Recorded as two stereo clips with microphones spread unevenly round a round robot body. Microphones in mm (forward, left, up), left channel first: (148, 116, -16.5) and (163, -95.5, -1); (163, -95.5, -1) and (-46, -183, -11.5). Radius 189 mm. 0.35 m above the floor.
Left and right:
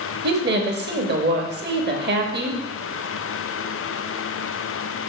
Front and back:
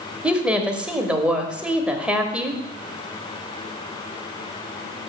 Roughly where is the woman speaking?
Right.